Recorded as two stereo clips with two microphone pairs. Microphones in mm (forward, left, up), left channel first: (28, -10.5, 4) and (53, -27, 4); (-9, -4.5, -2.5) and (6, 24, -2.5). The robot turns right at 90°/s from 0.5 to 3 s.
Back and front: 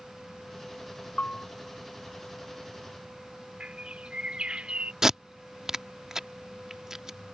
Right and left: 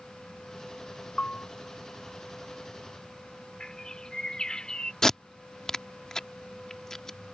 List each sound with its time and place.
1.2 s a bell: straight behind; by 1.5 s 155° right
3.6 s a bird: 55° right
5.0 s tape being pulled: 60° right